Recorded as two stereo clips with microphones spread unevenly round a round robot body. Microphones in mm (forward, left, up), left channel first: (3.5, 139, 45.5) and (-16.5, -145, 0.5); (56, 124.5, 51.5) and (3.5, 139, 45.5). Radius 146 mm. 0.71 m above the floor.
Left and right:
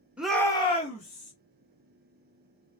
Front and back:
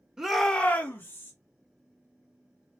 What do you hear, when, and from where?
0.2 s a shout: 155° right, 0.9 m; by 1.3 s 25° left, 1.5 m